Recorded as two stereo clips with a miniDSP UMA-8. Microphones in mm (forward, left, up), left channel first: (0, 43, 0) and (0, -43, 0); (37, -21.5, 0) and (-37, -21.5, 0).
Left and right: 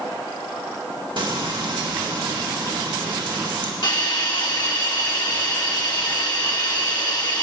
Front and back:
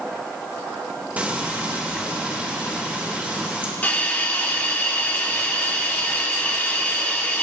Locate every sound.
1.2 s frying: 110° right, 2 m
3.8 s a hiss: 60° left, 1.4 m